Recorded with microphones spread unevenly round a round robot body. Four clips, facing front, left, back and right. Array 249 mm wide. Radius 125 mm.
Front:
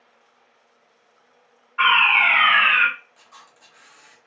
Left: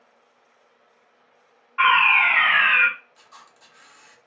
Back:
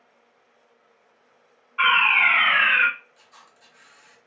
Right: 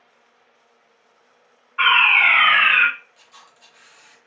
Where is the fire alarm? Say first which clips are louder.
Even, front 2 dB; 80° left, 1.8 m.